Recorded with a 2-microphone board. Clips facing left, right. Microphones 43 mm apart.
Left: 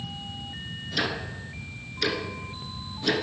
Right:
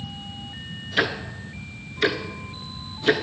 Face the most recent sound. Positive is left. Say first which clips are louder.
# right 5 dB
turn(degrees=-35)  # may be behind; listen again after turning